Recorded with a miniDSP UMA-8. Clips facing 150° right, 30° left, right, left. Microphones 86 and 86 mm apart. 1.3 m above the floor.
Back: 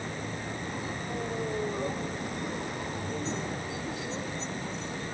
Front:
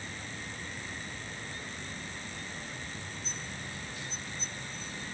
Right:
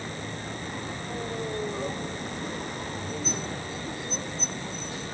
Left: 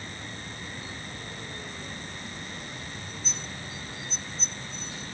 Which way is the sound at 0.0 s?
130° right.